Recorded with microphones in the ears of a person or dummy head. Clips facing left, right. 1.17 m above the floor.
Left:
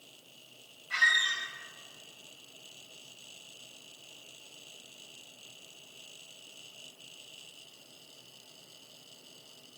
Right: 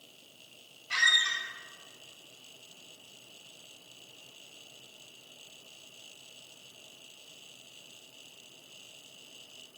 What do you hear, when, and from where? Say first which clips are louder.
0.9 s a squeak: even; 60° right (ahead or behind), 2 m